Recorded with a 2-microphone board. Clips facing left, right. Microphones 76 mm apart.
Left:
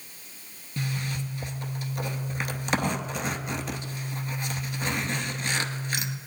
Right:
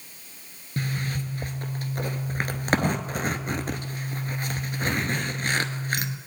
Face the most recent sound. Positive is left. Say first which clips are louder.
# right 2 dB
turn(degrees=-45)  # may be behind; listen again after turning